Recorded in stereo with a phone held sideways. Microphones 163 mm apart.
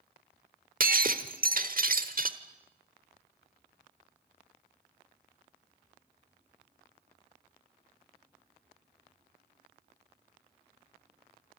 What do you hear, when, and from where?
0.8 s breaking glass: 55° right (ahead or behind), 1.2 m